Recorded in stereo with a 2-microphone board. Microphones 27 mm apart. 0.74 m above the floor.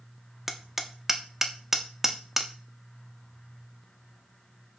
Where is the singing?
I don't hear singing.